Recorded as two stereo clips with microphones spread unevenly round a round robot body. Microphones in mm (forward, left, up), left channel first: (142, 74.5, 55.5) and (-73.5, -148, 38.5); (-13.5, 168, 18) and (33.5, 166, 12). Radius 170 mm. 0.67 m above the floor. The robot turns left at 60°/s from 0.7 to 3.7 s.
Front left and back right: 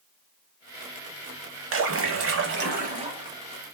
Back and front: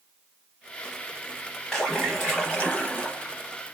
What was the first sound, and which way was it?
A splash, 120° right.